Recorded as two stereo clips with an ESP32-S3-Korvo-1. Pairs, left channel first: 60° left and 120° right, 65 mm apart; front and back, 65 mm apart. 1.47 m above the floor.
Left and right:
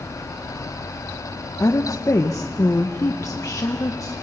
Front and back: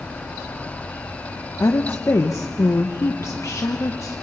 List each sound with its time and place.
1.6 s a woman speaking: 35° left, 0.9 m